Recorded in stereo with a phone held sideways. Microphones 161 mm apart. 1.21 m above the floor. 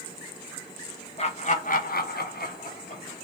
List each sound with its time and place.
1.2 s laughter: 40° left (ahead or behind), 0.8 m; by 3.2 s 35° left (ahead or behind), 0.7 m